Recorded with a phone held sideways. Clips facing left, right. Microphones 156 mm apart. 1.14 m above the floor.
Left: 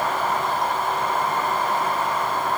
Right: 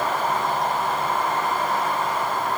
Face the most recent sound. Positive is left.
No sound to turn to.